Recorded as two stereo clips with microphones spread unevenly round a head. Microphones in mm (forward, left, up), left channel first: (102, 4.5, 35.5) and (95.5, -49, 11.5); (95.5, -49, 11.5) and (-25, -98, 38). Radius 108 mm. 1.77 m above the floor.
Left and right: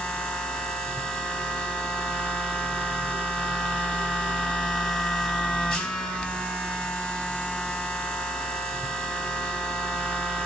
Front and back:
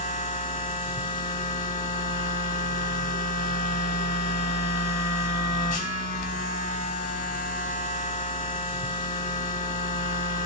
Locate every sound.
0.0 s a machine running: 30° left, 0.7 m